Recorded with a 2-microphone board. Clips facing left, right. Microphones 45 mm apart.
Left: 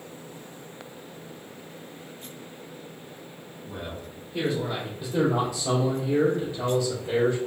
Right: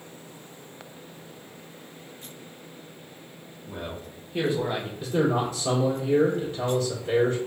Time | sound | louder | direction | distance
3.7 | a man speaking | right 1 dB | 15° right (ahead or behind) | 1.3 m
5.0 | a man speaking | even | 50° right (ahead or behind) | 1.7 m